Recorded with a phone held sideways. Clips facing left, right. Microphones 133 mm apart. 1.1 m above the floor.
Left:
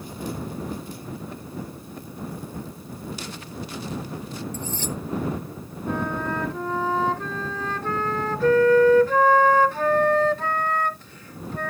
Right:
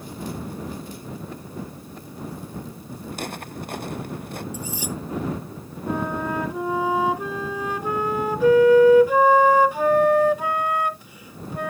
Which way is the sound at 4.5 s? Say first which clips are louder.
Left 1 dB; 10° right (ahead or behind).